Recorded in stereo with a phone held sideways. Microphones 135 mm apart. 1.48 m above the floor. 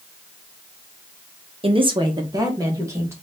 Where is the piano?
I don't hear a piano.